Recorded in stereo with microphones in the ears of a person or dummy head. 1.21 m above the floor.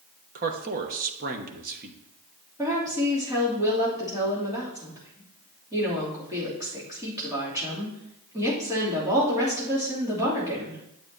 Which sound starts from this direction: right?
A man speaking, at 0.3 s.